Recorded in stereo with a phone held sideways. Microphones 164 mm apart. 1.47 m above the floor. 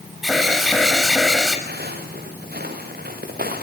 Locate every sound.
0.2 s an alarm: centre (ahead or behind), 6 m
1.7 s footsteps: 80° right, 9 m; by 3.6 s 70° right (ahead or behind), 7.5 m